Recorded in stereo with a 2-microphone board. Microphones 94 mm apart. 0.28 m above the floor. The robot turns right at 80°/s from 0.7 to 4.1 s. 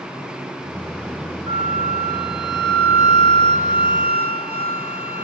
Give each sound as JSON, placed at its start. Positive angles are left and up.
{"t": 1.5, "sound": "a flute", "azimuth_deg": -90, "distance_m": 1.8}